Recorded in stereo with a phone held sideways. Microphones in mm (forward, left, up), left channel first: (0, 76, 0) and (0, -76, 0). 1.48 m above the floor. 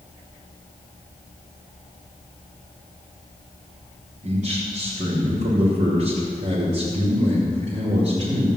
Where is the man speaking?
50° right (ahead or behind), 4.5 m.